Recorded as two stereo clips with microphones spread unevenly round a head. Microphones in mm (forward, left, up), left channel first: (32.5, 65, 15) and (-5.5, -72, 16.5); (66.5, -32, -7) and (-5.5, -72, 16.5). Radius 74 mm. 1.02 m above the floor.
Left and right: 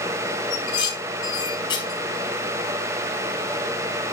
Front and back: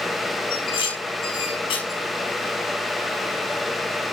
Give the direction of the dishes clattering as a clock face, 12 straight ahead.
12 o'clock.